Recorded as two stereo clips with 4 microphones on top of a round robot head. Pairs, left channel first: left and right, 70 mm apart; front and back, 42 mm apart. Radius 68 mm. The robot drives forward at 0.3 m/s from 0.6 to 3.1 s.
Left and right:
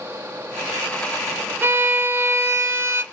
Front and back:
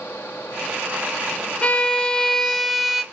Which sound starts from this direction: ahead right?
A violin, at 1.6 s.